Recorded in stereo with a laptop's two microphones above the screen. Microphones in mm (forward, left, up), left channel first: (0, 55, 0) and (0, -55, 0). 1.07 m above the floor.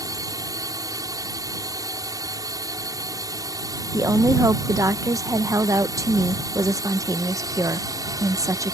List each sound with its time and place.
0.0 s a drone: 35° right (ahead or behind)
3.9 s a woman speaking: 30° right (ahead or behind)